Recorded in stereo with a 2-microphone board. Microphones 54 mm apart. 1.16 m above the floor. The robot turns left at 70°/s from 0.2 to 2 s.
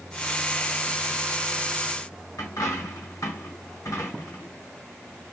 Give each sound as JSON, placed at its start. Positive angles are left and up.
{"t": 2.4, "sound": "a dropped coin", "side_deg": 80, "distance_m": 4.0}